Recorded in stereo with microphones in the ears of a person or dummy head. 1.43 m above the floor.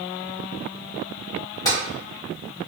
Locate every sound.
1.6 s tapping: 20° left (ahead or behind), 1.3 m